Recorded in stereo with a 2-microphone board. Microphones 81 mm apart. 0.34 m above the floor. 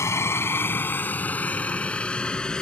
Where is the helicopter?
35° left (ahead or behind); by 2.6 s 10° left (ahead or behind).